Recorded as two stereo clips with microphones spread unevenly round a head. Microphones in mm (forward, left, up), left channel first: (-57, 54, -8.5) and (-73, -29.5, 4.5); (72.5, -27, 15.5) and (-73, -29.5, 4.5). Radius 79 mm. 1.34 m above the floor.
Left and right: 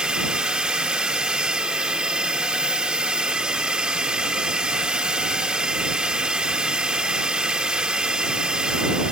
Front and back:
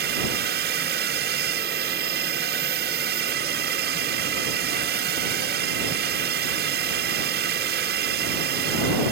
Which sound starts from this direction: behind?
A drone, at 0.0 s.